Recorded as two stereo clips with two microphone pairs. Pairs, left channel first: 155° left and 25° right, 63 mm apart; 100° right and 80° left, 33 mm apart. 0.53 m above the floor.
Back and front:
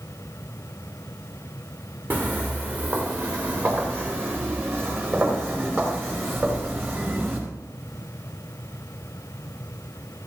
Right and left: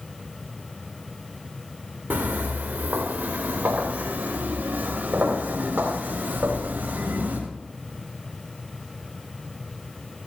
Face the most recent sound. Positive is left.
turn(degrees=30)